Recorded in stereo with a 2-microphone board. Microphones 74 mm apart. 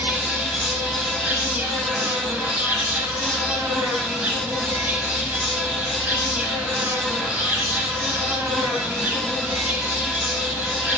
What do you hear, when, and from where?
0.0 s an insect: 20° right (ahead or behind), 0.8 m